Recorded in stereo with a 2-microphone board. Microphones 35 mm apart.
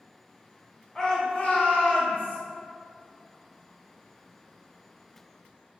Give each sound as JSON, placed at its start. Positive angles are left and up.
{"t": 0.9, "sound": "a shout", "side_deg": 20, "distance_m": 0.8}